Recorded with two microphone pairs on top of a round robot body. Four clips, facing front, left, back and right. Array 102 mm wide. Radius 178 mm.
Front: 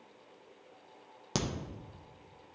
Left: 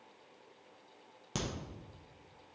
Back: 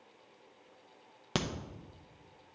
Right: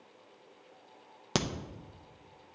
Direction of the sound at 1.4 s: 110° right.